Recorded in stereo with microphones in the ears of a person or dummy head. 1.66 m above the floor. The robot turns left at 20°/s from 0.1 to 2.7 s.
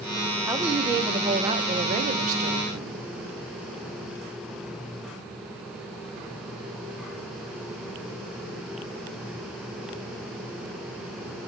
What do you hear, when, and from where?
0.5 s a woman speaking: 10° right, 0.8 m; by 3.0 s 55° right, 0.8 m